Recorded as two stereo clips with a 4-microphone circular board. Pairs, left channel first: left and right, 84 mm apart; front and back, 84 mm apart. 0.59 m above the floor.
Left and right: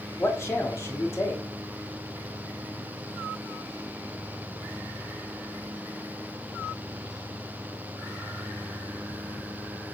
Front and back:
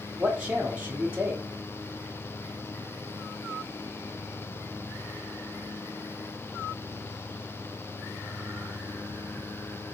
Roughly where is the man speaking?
Behind left.